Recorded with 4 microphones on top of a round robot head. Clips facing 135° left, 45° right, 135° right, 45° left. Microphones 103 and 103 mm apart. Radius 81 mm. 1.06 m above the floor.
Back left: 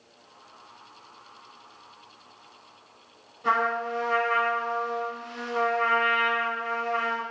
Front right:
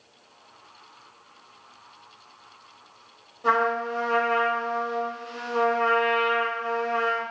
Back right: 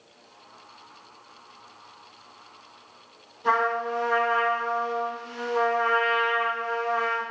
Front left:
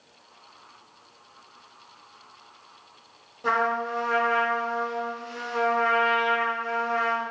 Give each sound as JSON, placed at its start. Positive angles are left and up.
{"t": 3.4, "sound": "a trumpet", "azimuth_deg": 10, "distance_m": 2.5}